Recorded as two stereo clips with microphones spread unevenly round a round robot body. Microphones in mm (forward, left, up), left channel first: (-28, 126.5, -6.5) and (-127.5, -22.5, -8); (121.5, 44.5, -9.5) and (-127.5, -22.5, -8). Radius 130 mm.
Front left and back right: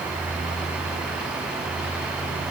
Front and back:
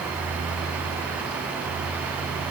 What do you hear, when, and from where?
Only background noise.